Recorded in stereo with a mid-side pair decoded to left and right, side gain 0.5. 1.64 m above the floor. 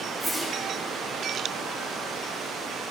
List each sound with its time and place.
0.2 s a whoosh: straight ahead, 5.5 m